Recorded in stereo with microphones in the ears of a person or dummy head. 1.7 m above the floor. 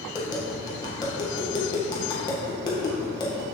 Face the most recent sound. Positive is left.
turn(degrees=25)  # may be behind; listen again after turning